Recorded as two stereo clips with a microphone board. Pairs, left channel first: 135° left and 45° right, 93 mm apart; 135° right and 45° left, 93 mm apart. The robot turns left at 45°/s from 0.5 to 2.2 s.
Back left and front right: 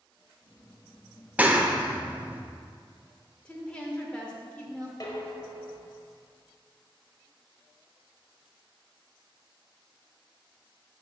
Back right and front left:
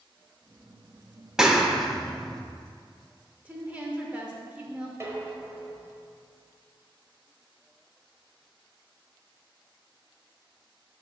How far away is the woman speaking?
About 0.9 m.